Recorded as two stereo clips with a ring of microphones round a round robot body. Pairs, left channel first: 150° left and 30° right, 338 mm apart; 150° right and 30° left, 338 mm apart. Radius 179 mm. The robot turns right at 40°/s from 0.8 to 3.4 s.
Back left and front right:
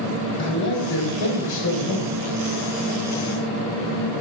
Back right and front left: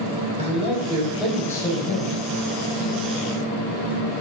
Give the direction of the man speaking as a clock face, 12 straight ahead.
9 o'clock.